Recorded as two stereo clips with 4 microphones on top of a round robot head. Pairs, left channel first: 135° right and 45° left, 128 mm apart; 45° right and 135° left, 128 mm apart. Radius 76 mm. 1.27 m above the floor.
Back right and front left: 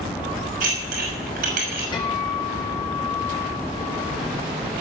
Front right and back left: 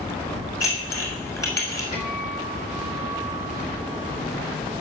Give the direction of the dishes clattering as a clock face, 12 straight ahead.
11 o'clock.